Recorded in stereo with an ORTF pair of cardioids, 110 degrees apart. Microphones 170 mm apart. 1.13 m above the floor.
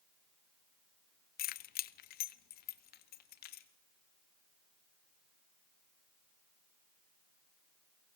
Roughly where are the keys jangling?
Ahead left.